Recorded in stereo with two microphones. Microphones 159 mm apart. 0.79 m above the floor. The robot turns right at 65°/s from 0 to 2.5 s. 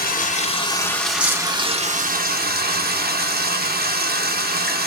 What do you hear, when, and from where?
0.0 s running water: 105° left, 0.7 m; by 4.9 s 90° right, 0.7 m